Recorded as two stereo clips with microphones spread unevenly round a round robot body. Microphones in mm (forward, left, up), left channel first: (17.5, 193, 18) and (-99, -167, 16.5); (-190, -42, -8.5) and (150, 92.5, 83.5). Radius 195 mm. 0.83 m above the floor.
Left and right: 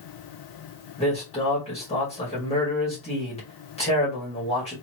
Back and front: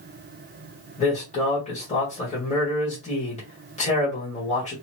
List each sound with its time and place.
1.0 s a man speaking: 145° left, 1.6 m